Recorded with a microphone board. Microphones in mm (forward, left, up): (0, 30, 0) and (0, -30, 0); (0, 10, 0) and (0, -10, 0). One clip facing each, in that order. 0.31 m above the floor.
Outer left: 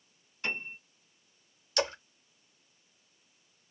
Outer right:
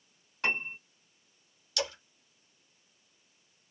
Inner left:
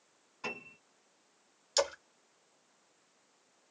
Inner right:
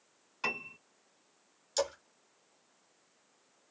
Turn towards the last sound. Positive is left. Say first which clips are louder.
# outer left 4 dB, inner left 2 dB
turn(degrees=35)  # may be behind; listen again after turning